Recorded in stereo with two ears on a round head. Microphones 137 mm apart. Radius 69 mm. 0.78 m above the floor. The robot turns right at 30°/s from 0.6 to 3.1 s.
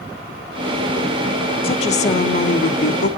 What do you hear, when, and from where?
1.6 s a woman speaking: 35° left, 1.1 m; by 3.1 s 80° left, 1.1 m